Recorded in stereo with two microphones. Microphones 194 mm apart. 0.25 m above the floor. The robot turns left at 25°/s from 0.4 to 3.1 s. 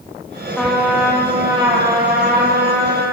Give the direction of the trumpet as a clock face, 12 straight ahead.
12 o'clock.